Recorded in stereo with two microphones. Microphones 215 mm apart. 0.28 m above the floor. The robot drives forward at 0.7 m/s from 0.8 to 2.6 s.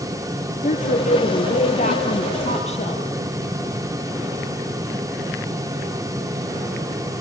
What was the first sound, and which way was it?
A woman speaking, 40° left (ahead or behind).